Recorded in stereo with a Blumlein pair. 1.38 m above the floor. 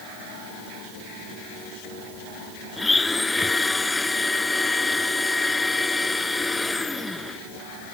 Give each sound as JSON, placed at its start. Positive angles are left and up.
{"t": 2.8, "sound": "a blender", "azimuth_deg": 10}